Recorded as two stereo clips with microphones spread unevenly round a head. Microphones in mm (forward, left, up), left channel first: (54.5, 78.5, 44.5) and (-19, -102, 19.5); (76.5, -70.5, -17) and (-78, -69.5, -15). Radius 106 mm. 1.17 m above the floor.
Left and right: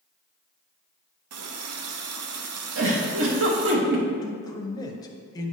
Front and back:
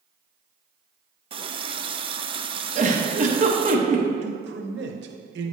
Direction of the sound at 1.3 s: 125° right.